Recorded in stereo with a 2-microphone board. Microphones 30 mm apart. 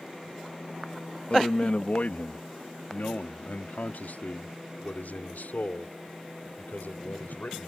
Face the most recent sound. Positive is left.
turn(degrees=85)